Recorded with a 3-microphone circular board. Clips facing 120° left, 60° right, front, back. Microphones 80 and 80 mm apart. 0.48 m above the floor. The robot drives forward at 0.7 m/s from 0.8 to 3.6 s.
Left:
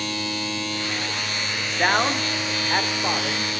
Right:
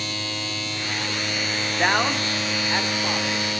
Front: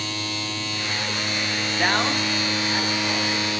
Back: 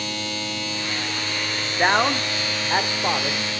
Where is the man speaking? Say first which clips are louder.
Left 1 dB, back 4 dB; 150° right, 0.9 m; by 3.6 s 175° right, 1.8 m.